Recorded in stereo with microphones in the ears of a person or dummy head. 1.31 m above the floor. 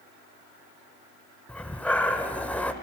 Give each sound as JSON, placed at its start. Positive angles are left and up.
{"t": 1.5, "sound": "breathing", "side_deg": 10, "distance_m": 1.1}